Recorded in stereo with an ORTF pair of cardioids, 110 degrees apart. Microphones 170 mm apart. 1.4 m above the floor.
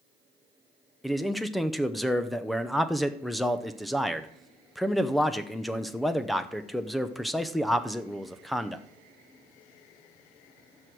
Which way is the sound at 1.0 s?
Straight ahead.